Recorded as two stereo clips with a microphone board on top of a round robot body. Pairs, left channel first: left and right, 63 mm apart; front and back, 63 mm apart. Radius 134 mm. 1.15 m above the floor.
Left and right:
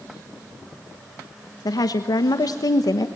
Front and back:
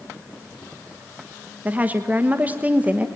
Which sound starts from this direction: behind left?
A woman speaking, at 1.6 s.